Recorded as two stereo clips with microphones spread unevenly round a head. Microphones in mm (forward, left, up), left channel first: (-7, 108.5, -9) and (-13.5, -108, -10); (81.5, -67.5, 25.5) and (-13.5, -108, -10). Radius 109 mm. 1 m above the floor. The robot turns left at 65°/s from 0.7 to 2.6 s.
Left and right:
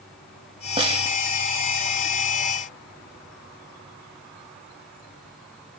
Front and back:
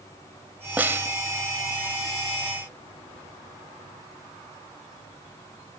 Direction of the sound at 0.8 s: 55° right.